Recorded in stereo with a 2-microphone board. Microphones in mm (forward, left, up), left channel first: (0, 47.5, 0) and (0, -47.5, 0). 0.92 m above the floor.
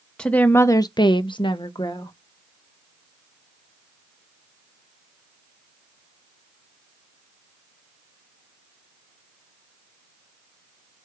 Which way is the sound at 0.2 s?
10° left (ahead or behind).